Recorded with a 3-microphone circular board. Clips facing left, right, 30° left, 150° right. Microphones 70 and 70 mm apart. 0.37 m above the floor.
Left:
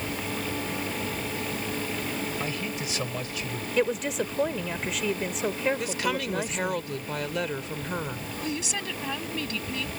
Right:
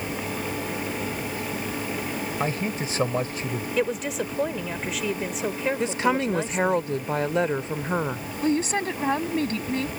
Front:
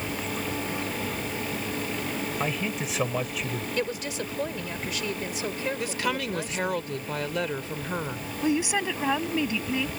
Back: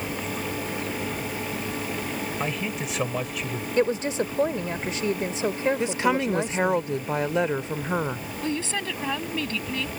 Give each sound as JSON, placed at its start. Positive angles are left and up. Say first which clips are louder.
{"t": 2.4, "sound": "a man speaking", "louder": "right 5 dB, even", "azimuth_deg": -60}
{"t": 3.8, "sound": "a woman speaking", "louder": "left 1 dB, back 10 dB", "azimuth_deg": 180}
{"t": 5.8, "sound": "a woman speaking", "louder": "right 6 dB, back 5 dB", "azimuth_deg": -110}
{"t": 8.4, "sound": "a woman speaking", "louder": "right 10 dB, front 4 dB", "azimuth_deg": -45}